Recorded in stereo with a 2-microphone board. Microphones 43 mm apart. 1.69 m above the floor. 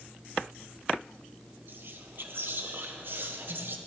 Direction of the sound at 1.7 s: 55° right (ahead or behind).